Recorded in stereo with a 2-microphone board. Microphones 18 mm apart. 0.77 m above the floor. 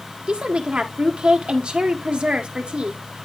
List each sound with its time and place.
0.3 s a woman speaking: 60° right (ahead or behind), 1.6 m